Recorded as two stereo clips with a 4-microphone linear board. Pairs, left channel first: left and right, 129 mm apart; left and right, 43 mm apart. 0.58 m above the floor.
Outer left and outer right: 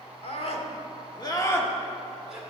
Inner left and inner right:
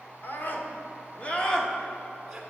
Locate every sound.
0.2 s a scream: 55° left (ahead or behind), 1.8 m; by 2.4 s 5° right (ahead or behind), 1.8 m